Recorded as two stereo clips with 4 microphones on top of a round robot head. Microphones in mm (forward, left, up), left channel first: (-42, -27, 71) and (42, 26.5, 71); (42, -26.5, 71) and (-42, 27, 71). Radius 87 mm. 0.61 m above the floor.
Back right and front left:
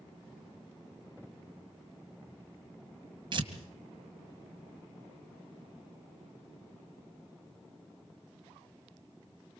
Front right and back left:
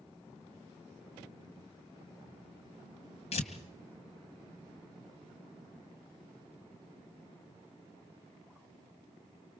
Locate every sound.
3.3 s tearing paper: 10° right, 2.5 m